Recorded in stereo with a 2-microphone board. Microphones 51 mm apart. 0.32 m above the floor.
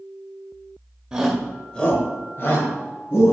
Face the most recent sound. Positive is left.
turn(degrees=60)  # may be behind; listen again after turning